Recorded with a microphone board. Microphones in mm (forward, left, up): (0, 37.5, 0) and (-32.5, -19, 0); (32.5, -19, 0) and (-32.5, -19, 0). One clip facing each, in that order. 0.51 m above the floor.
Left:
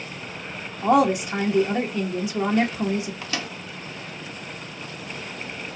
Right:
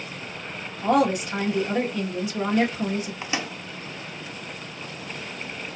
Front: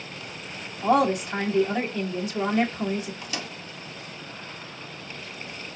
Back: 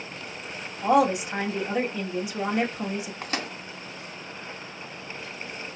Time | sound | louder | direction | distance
0.8 | a woman speaking | left 2 dB, even | 120° left | 1.3 m
3.2 | a microwave | right 1 dB, back 3 dB | straight behind | 0.6 m